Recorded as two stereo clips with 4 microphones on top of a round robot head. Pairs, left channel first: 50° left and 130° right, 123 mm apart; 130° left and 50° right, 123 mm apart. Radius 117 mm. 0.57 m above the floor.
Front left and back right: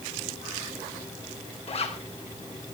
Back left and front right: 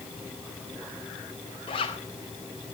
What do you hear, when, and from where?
1.7 s a zipper: 85° left, 4 m